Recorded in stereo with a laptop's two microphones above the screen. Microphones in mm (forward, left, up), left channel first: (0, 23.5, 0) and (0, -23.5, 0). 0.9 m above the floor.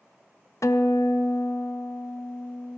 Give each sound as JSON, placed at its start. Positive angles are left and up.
{"t": 0.6, "sound": "a guitar", "side_deg": 80, "distance_m": 0.6}